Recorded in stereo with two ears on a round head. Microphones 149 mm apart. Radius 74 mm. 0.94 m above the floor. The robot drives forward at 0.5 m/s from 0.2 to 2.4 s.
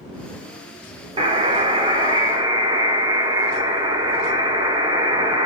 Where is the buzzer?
30° right (ahead or behind), 1.0 m; by 5.5 s 25° right (ahead or behind), 1.3 m.